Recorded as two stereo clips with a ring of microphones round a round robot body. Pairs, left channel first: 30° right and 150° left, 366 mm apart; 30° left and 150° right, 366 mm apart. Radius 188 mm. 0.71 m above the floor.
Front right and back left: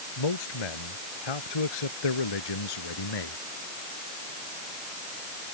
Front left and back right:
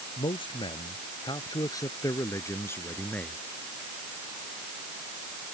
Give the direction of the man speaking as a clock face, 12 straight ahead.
2 o'clock.